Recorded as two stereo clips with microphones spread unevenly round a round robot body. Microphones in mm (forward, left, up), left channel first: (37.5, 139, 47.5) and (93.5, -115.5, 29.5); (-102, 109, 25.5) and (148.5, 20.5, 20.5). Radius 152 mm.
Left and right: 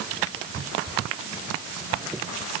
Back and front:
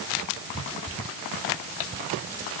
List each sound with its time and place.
Only background noise.